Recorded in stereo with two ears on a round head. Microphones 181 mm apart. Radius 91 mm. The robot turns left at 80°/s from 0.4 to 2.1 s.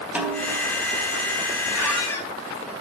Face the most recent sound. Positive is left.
turn(degrees=10)  # may be behind; listen again after turning